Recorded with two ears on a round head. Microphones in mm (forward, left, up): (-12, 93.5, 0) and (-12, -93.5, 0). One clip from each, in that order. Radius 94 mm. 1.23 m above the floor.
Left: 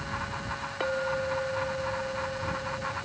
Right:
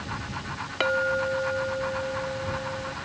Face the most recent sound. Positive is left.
turn(degrees=-80)